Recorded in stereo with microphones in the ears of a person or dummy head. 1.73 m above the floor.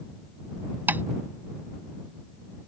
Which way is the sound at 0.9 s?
10° right (ahead or behind).